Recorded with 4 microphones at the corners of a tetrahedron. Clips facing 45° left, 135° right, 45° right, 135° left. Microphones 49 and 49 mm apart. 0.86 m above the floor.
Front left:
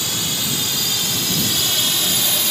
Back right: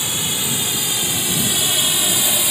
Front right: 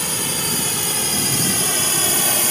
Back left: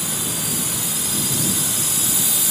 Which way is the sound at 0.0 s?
65° right.